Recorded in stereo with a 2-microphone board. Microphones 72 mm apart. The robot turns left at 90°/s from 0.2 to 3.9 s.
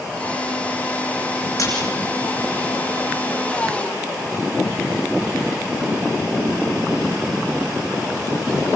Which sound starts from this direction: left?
A splash, at 1.6 s.